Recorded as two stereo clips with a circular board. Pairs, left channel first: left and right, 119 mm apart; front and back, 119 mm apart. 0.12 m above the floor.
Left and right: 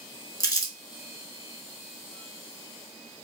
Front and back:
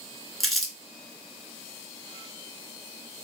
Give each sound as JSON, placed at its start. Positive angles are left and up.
{"t": 0.4, "sound": "crumpling", "azimuth_deg": 90, "distance_m": 0.7}